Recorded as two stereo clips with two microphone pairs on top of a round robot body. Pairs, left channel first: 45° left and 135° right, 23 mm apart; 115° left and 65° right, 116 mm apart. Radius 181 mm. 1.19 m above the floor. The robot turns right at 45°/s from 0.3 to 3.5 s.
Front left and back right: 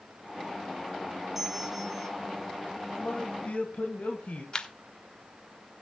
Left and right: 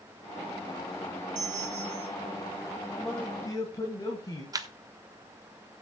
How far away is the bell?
About 2.0 m.